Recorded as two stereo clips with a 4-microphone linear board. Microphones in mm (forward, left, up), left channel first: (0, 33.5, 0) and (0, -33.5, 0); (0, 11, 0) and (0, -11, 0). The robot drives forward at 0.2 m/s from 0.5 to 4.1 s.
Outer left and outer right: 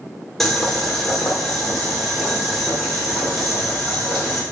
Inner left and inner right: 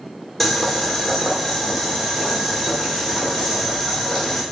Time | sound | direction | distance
0.4 | boiling | 5° left (ahead or behind) | 0.7 m